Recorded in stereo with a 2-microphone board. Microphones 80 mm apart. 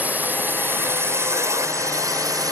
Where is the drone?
20° right (ahead or behind); by 2.5 s 50° right (ahead or behind).